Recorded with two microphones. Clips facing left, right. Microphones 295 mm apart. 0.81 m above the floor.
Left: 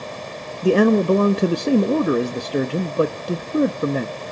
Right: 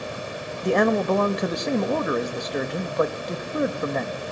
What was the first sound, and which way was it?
A man speaking, 35° left (ahead or behind).